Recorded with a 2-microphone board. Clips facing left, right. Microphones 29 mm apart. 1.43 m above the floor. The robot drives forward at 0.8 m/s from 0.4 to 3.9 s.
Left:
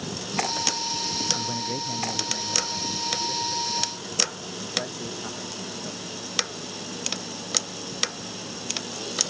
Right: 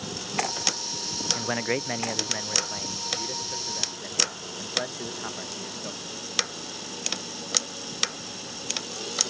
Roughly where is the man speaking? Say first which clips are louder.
Right 2 dB; right.